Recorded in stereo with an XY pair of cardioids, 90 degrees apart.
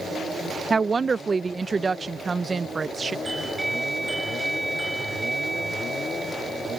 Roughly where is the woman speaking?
Ahead right.